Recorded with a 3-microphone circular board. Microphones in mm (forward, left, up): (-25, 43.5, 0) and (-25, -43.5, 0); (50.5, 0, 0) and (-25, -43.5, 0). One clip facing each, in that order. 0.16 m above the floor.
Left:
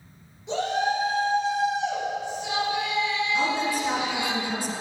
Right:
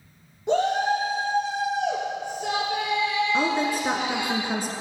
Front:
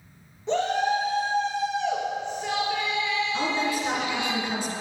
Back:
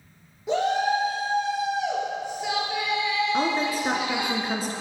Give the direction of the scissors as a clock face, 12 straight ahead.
I don't hear scissors.